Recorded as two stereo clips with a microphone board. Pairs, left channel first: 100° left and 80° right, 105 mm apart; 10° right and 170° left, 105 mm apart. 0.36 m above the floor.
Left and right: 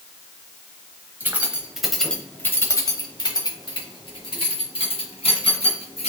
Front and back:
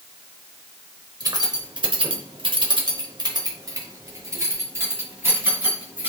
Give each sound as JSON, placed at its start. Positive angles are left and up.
{"t": 1.2, "sound": "keys jangling", "azimuth_deg": -145, "distance_m": 0.9}